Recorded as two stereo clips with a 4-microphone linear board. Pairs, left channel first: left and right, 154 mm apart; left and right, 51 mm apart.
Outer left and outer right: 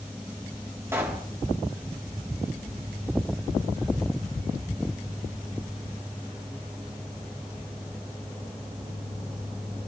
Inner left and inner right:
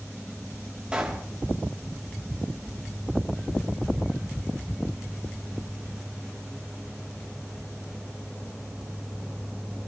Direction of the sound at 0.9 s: 15° right (ahead or behind).